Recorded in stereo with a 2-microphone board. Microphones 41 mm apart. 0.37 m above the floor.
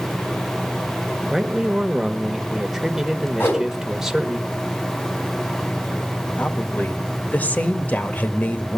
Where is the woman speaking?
40° left (ahead or behind), 1.2 m.